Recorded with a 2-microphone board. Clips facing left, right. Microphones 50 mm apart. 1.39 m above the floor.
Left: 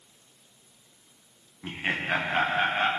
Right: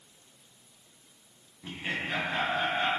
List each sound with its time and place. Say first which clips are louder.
1.6 s laughter: left 5 dB; 35° left (ahead or behind), 0.9 m; by 2.9 s 50° left (ahead or behind), 1.5 m